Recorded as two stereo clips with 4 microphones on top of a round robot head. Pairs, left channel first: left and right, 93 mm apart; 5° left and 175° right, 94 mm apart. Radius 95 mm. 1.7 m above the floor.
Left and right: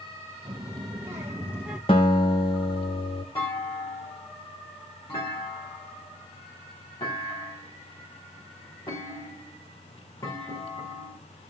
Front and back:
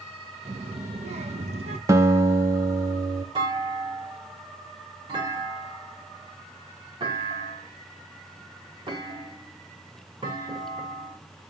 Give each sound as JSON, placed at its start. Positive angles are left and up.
{"t": 0.5, "sound": "a child speaking", "azimuth_deg": -145, "distance_m": 1.4}
{"t": 1.9, "sound": "a guitar", "azimuth_deg": 140, "distance_m": 1.0}
{"t": 3.4, "sound": "a clunk", "azimuth_deg": 150, "distance_m": 5.0}